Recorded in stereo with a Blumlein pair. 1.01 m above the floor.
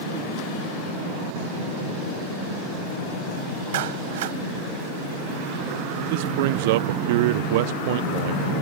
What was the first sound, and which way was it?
A clap, 55° right.